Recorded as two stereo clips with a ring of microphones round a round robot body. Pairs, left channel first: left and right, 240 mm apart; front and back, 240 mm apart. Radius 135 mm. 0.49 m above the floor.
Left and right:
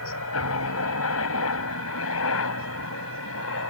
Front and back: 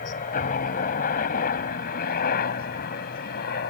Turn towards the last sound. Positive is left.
turn(degrees=55)